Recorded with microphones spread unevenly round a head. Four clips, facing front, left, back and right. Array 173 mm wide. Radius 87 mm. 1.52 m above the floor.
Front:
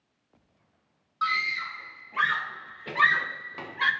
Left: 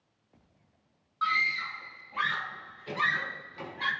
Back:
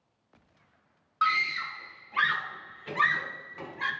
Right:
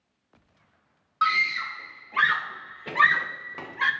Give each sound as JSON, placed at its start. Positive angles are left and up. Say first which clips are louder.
{"t": 1.2, "sound": "a scream", "louder": "right 5 dB, back 1 dB", "azimuth_deg": -105, "distance_m": 1.6}